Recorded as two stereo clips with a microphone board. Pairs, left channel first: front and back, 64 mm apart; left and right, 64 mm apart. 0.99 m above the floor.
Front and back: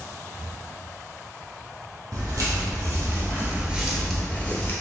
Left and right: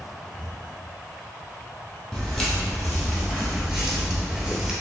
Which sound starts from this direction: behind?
Footsteps, at 2.1 s.